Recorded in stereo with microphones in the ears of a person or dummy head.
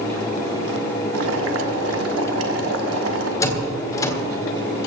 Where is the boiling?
70° right (ahead or behind), 1.5 m.